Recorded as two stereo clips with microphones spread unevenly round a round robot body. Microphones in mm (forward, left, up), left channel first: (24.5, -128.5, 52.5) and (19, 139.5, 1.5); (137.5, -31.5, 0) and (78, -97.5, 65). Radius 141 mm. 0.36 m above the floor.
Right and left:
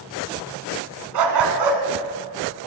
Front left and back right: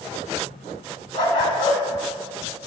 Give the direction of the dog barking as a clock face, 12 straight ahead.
9 o'clock.